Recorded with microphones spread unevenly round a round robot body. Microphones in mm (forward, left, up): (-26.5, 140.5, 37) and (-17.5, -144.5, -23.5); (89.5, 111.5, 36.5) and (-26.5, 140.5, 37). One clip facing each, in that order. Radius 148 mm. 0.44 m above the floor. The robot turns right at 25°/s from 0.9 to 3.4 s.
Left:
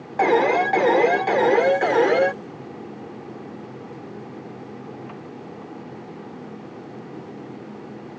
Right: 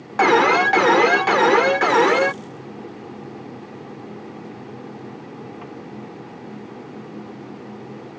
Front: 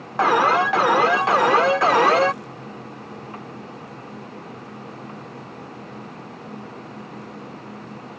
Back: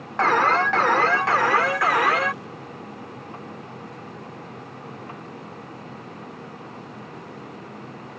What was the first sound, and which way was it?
An alarm, 85° right.